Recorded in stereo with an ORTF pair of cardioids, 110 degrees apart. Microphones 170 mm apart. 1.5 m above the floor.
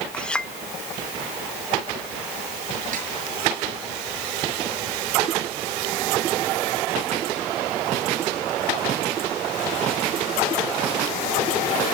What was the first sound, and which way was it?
A clink, 5° left.